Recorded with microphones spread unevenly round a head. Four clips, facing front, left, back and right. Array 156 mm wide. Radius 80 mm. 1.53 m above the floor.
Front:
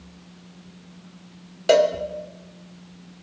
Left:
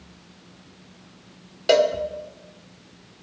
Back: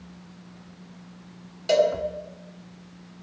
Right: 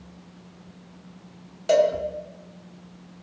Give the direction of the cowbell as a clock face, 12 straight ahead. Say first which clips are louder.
Left 1 dB, front 3 dB; 11 o'clock.